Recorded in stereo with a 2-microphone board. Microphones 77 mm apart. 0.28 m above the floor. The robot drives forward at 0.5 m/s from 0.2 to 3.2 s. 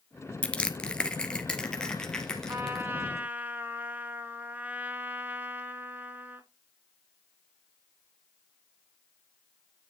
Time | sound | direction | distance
0.4 | crushing | 15° left (ahead or behind) | 1.1 m
2.5 | a trumpet | 35° right (ahead or behind) | 0.8 m